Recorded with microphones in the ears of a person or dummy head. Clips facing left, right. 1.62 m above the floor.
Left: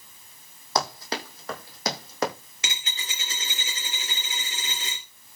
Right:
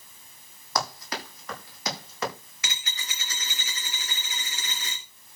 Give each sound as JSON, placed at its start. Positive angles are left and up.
{"t": 0.8, "sound": "running footsteps", "side_deg": 30, "distance_m": 5.5}
{"t": 2.6, "sound": "a dropped coin", "side_deg": 20, "distance_m": 2.5}